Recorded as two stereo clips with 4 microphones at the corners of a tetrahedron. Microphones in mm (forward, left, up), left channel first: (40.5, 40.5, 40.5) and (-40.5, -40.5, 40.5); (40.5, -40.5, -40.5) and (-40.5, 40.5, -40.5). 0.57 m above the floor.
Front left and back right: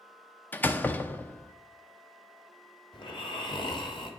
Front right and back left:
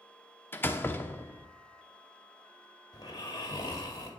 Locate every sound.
0.5 s a door slam: 5° right, 0.7 m
2.9 s snoring: 5° left, 2.0 m